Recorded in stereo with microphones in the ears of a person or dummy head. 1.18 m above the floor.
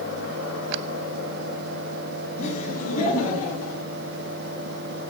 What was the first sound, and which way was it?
Laughter, 40° left (ahead or behind).